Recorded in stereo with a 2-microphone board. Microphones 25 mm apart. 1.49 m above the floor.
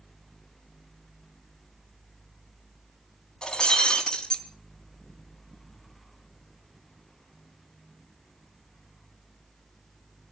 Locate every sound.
3.4 s breaking glass: 35° left (ahead or behind), 3.5 m